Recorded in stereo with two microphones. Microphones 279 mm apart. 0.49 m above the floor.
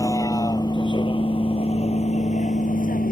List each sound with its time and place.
0.0 s a vehicle: 10° left (ahead or behind); by 3.1 s 30° left (ahead or behind)